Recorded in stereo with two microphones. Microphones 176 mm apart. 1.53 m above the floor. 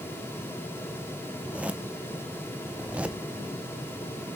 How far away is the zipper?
About 0.6 m.